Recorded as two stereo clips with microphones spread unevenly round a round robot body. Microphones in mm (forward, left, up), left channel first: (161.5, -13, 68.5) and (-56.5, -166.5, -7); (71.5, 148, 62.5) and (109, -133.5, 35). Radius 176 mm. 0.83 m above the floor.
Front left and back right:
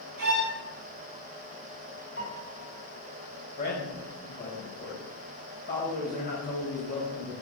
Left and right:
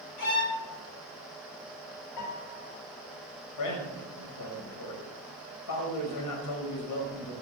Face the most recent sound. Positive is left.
turn(degrees=105)